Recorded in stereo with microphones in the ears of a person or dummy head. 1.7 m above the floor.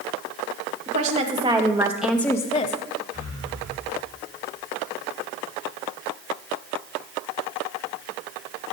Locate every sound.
0.9 s a woman speaking: 30° right (ahead or behind), 1.5 m; by 2.8 s 40° left (ahead or behind), 0.7 m
3.1 s breathing: 60° right (ahead or behind), 2.5 m